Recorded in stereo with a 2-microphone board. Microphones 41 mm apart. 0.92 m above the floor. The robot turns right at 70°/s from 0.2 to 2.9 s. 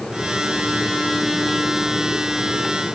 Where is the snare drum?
I don't hear a snare drum.